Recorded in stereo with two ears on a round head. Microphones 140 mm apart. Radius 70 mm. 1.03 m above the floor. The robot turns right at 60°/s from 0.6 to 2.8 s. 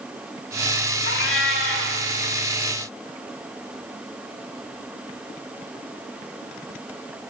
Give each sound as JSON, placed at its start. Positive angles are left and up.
{"t": 1.1, "sound": "a cat meowing", "azimuth_deg": 75, "distance_m": 2.0}